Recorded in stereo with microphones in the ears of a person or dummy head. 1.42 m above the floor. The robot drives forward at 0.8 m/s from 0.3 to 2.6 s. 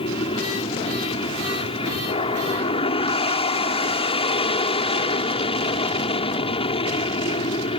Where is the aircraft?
25° left (ahead or behind); by 7.8 s 20° left (ahead or behind).